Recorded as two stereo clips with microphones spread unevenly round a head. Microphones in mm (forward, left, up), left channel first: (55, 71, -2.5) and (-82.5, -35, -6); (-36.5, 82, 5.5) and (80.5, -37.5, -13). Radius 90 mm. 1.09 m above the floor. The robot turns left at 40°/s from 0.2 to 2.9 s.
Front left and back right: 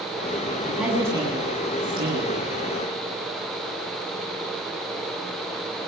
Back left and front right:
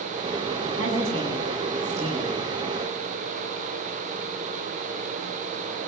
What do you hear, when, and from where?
0.6 s a woman speaking: 50° right, 7.5 m; by 2.4 s 120° right, 7.5 m